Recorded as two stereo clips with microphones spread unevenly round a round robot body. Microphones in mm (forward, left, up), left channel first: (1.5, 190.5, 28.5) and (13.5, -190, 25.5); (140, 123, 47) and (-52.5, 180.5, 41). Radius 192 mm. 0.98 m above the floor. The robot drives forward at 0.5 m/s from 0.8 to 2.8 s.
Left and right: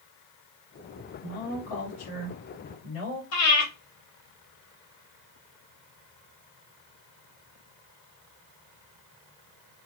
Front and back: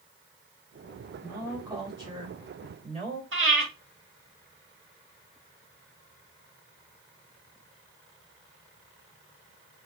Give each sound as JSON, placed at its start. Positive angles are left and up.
{"t": 1.2, "sound": "a woman speaking", "azimuth_deg": 90, "distance_m": 3.0}
{"t": 3.3, "sound": "breathing", "azimuth_deg": 145, "distance_m": 2.0}